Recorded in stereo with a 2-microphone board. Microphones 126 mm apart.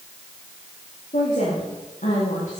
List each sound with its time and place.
1.1 s a woman speaking: 80° left, 7.5 m; by 2.6 s 75° left (ahead or behind), 7.5 m